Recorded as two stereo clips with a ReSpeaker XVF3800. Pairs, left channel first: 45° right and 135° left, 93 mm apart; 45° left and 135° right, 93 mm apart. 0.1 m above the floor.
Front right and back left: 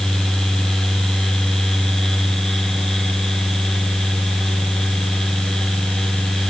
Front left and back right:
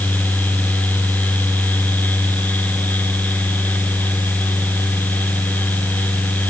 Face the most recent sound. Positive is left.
No sound to turn to.